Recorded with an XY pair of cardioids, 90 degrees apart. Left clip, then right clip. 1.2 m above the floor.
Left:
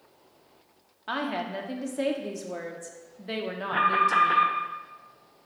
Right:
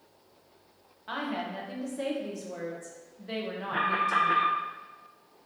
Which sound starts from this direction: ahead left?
A woman speaking, at 1.1 s.